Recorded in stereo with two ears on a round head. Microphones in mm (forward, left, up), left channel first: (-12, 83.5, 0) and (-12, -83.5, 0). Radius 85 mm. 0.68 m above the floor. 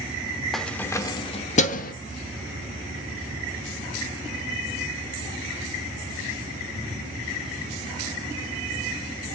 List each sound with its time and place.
0.5 s keys jangling: centre (ahead or behind), 1.1 m; by 1.9 s 55° left (ahead or behind), 1.1 m